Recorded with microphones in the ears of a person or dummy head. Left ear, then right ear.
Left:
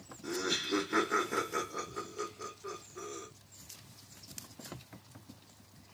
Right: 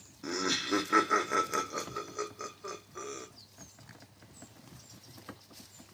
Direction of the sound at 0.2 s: 50° right (ahead or behind).